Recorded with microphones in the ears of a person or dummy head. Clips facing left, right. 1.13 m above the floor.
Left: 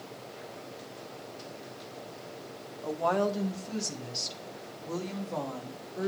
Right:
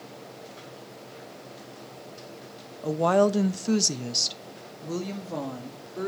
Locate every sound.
2.8 s a woman speaking: 40° right (ahead or behind), 0.9 m; by 6.1 s 35° right (ahead or behind), 2 m